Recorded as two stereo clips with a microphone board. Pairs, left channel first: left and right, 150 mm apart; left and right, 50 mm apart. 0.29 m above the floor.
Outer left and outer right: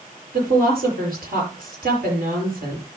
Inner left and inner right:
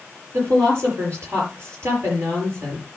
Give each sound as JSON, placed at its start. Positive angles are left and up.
{"t": 0.3, "sound": "a woman speaking", "side_deg": -70, "distance_m": 5.5}